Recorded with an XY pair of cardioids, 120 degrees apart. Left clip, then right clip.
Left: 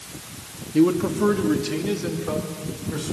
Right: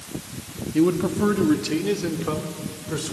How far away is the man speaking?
About 2.0 m.